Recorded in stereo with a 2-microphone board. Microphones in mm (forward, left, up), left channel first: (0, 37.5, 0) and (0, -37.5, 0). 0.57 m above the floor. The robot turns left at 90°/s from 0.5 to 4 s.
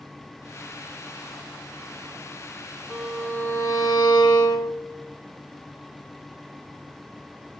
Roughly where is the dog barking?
No dog barking in this recording.